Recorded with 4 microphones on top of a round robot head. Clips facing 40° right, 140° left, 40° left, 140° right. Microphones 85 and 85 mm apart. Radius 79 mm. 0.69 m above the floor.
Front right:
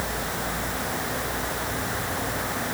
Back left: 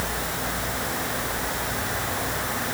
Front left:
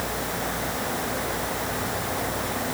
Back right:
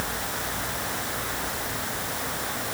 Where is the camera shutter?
I don't hear a camera shutter.